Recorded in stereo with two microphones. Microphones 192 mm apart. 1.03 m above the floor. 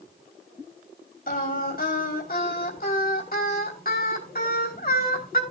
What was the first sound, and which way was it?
Singing, 50° left (ahead or behind).